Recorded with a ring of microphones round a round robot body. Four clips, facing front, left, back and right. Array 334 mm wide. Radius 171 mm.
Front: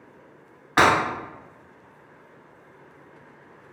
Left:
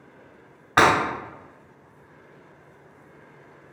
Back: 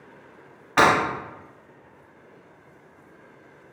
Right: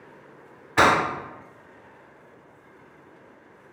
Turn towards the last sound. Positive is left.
turn(degrees=85)